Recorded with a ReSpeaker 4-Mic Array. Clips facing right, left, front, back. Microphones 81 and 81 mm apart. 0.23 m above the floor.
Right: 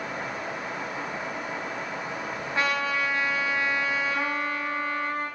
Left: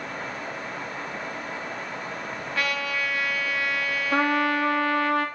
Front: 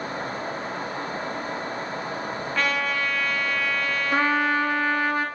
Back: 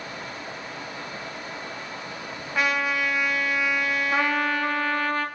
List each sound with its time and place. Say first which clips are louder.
2.5 s a trumpet: right 2 dB, back 2 dB; 115° right, 1.7 m
4.1 s a trumpet: left 6 dB, front 4 dB; 75° left, 1.9 m